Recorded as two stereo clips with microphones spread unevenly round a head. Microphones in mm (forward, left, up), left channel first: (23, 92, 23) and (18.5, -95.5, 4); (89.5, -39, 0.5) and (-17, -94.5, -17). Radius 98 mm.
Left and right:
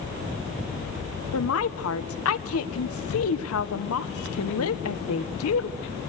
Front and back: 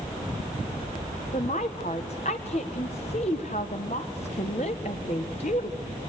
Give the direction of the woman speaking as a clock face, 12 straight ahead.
9 o'clock.